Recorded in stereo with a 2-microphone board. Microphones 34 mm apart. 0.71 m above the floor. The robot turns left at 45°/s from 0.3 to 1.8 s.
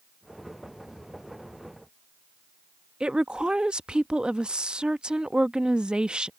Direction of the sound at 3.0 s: 30° right (ahead or behind).